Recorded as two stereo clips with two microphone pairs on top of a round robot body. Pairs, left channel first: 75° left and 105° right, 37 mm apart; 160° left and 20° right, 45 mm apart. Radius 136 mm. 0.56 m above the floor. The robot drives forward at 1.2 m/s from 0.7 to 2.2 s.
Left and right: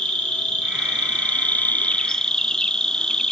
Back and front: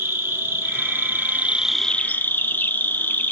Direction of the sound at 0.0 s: 10° left.